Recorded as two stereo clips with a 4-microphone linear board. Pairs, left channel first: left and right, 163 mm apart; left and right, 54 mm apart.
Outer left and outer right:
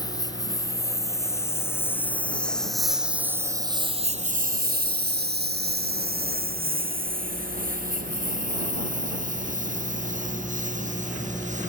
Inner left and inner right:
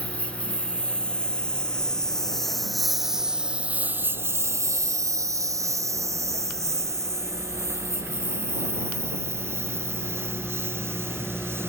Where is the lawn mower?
25° left (ahead or behind); by 11.7 s 50° right (ahead or behind).